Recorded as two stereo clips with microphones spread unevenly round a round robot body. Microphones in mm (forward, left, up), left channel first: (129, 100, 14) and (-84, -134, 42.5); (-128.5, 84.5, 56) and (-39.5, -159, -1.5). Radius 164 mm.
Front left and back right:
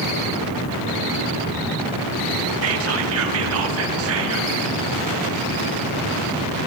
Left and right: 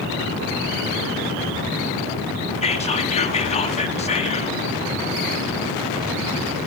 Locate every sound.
2.6 s whispering: straight behind, 1.1 m